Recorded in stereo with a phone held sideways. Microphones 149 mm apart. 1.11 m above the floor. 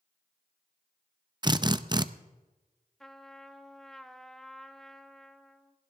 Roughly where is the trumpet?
Centre.